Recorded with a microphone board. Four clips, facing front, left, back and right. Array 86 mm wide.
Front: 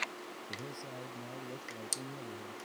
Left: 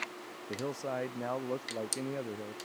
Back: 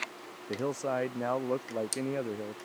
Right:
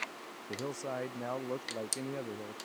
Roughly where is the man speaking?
Behind.